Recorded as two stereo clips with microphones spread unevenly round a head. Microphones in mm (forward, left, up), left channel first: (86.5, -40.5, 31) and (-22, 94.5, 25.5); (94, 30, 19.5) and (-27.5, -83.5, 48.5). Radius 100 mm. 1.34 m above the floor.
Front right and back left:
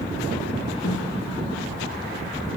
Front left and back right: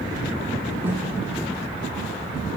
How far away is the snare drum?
About 5 m.